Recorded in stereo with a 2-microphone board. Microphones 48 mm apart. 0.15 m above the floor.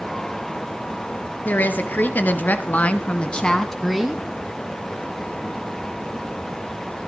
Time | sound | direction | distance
1.4 | a woman speaking | 40° left (ahead or behind) | 2 m